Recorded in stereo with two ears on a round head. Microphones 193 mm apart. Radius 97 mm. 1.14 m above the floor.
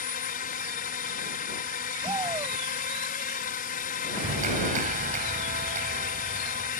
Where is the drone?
40° left (ahead or behind).